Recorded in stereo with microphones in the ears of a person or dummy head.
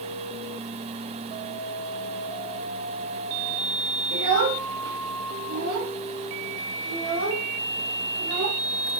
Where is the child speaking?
65° right (ahead or behind), 1.6 m; by 8.6 s 85° right, 4 m.